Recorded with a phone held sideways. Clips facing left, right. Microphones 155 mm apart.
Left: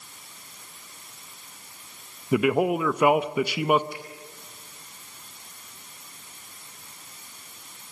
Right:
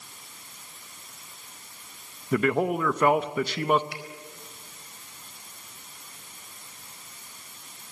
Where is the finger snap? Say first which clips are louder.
Left 2 dB; 80° right, 4 m.